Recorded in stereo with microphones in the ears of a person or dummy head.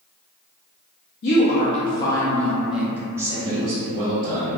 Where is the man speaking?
35° right (ahead or behind), 0.6 m.